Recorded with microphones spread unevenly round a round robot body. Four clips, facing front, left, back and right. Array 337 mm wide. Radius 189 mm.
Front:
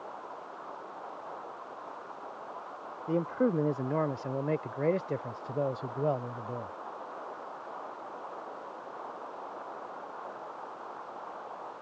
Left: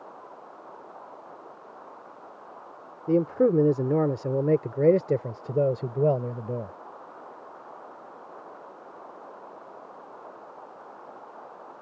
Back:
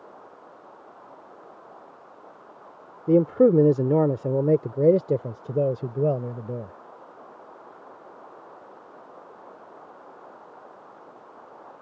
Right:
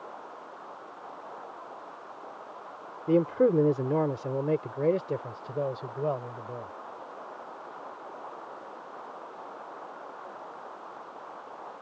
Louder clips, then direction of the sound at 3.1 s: Left 1 dB, back 11 dB; 175° left.